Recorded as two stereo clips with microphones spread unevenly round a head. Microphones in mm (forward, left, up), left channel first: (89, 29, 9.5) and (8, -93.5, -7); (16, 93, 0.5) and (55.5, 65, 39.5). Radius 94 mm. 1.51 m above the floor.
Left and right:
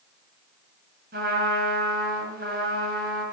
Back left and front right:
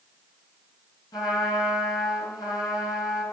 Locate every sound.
1.1 s a trumpet: 170° right, 5.5 m